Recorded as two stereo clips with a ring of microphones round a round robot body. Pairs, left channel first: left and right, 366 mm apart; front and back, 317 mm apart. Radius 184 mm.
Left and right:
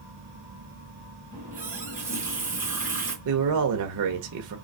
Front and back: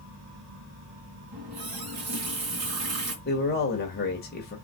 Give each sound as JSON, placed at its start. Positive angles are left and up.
{"t": 1.3, "sound": "a running tap", "azimuth_deg": -175, "distance_m": 3.5}
{"t": 3.2, "sound": "a man speaking", "azimuth_deg": -60, "distance_m": 1.3}